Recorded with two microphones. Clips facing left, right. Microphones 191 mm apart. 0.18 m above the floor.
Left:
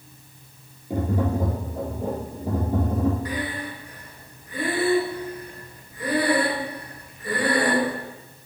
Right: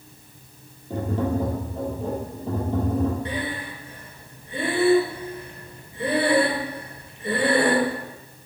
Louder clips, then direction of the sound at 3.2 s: Even; 25° right (ahead or behind).